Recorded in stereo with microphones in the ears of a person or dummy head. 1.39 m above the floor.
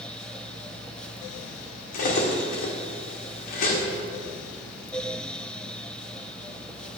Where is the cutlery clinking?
50° left (ahead or behind), 1.8 m.